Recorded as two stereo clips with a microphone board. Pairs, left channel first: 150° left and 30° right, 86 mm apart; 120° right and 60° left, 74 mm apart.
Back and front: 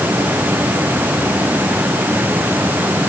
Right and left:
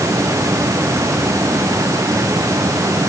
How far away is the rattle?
No rattle in this recording.